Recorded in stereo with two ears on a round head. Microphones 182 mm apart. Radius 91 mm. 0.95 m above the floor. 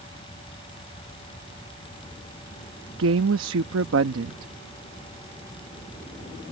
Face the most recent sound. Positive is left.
turn(degrees=-70)  # may be behind; listen again after turning